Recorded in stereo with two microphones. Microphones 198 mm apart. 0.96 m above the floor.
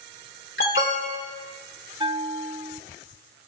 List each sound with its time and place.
0.6 s an alarm: 85° left, 2.5 m
2.0 s a bell: 25° right (ahead or behind), 0.6 m